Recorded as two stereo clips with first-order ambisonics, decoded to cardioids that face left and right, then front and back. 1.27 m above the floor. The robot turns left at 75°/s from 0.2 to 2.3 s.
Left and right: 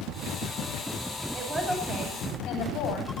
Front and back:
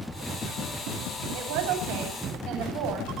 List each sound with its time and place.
1.3 s a woman speaking: 155° right, 10 m; by 3.1 s 135° left, 10 m